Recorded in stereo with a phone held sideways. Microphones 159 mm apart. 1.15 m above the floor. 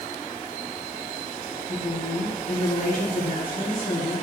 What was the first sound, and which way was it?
A woman speaking, 60° left (ahead or behind).